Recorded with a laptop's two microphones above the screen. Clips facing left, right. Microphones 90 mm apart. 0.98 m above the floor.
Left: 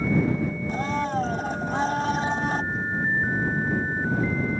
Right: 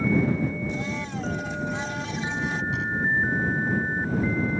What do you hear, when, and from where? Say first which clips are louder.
0.7 s a blender: left 5 dB; 45° left (ahead or behind)
2.7 s knocking: even; 90° right